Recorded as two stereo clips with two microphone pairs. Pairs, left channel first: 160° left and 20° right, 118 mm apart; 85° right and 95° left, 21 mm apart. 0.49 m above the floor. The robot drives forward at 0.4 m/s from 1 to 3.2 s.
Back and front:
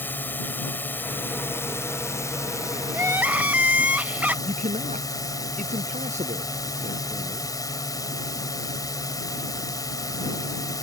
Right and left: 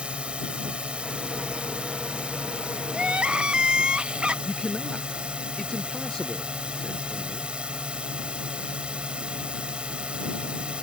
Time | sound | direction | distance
0.0 | a drone | 90° left | ?
2.9 | crying | 50° left | ?
4.5 | a man speaking | 25° right | ?